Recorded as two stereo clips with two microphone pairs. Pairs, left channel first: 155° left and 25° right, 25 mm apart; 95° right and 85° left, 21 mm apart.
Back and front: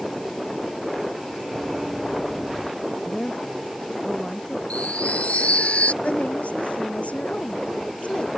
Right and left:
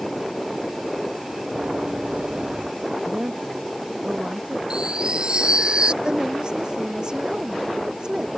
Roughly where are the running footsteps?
Ahead left.